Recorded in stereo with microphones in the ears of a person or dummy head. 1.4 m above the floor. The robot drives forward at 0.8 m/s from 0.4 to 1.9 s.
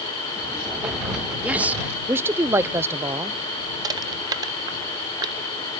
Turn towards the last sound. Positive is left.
turn(degrees=-20)  # may be behind; listen again after turning